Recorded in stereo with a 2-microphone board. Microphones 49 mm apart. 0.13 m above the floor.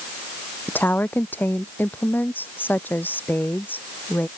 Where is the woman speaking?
40° left (ahead or behind).